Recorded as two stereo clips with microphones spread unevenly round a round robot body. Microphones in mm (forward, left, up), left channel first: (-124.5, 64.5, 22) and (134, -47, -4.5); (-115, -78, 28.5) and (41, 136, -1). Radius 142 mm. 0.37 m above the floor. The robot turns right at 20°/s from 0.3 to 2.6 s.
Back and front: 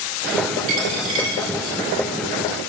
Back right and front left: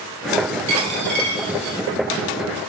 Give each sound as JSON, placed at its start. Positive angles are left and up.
{"t": 0.7, "sound": "a dropped coin", "azimuth_deg": 15, "distance_m": 1.3}